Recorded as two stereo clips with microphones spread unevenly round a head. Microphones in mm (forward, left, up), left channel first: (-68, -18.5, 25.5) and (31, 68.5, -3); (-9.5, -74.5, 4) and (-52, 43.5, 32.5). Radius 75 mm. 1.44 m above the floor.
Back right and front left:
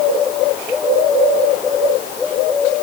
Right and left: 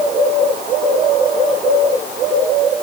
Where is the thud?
I don't hear a thud.